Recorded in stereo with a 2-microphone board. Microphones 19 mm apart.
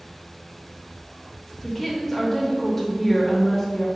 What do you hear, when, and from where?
1.6 s a woman speaking: 15° left (ahead or behind), 0.8 m